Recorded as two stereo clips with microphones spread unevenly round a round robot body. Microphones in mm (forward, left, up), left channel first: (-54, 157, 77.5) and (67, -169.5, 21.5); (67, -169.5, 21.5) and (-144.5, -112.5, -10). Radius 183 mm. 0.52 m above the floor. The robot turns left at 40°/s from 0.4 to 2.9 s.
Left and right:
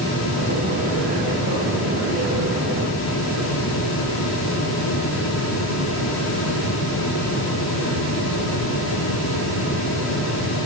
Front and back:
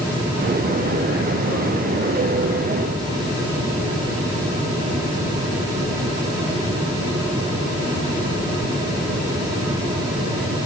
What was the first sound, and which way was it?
Only background noise.